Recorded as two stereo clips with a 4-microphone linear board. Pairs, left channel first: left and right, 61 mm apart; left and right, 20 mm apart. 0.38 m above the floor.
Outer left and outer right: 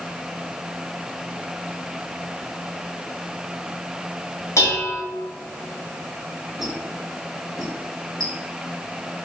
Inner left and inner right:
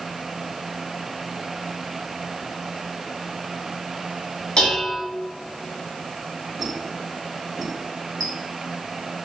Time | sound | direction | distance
4.6 | dishes clattering | 50° left (ahead or behind) | 1.4 m
6.6 | a squeak | centre (ahead or behind) | 1.4 m